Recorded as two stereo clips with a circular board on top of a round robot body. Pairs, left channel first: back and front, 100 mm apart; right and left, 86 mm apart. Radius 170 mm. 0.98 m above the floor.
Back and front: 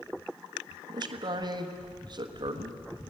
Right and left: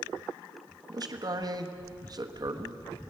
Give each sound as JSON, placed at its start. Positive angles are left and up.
{"t": 0.9, "sound": "a man speaking", "azimuth_deg": 45, "distance_m": 1.4}